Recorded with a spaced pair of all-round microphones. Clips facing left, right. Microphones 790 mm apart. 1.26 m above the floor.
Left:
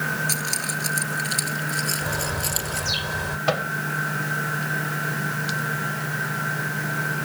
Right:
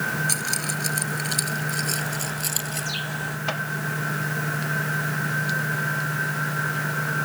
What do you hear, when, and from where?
0.3 s keys jangling: 20° left (ahead or behind); by 2.9 s 25° left (ahead or behind)
2.0 s a bird: 85° left
3.5 s a microwave: 80° left